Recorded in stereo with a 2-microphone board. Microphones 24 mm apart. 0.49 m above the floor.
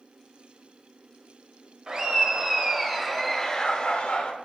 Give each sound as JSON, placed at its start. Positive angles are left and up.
{"t": 1.9, "sound": "laughter", "side_deg": -30, "distance_m": 1.8}